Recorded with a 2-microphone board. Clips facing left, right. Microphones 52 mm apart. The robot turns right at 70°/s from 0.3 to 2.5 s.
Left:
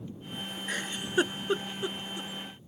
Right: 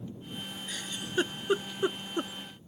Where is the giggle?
50° left (ahead or behind); by 2.3 s 55° right (ahead or behind).